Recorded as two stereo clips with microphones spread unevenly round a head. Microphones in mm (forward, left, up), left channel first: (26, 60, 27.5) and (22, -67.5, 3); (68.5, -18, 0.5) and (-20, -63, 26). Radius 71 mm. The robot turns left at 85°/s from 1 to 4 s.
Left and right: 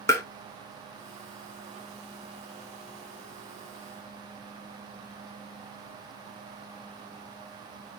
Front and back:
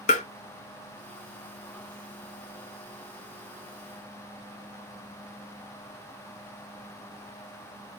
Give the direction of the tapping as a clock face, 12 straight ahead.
11 o'clock.